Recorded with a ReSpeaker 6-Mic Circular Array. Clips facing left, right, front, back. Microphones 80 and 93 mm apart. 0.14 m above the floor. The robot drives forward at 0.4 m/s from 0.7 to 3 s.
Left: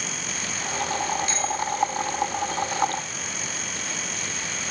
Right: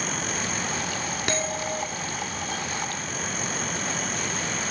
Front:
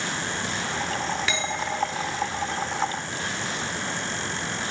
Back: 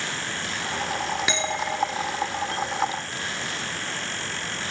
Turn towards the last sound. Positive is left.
turn(degrees=-115)